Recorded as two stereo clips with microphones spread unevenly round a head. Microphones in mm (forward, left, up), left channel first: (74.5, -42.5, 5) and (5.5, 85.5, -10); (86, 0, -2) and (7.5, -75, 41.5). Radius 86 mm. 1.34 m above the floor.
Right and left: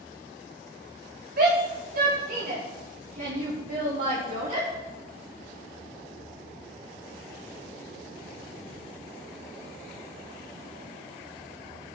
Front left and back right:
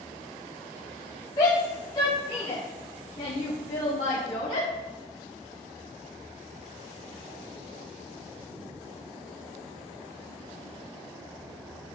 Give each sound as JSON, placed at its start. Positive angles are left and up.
{"t": 1.4, "sound": "a shout", "azimuth_deg": 105, "distance_m": 2.0}